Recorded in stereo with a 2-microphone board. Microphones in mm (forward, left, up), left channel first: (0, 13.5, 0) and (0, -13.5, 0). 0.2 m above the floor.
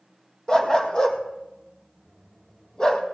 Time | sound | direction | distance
0.5 | a dog barking | 30° left (ahead or behind) | 1.8 m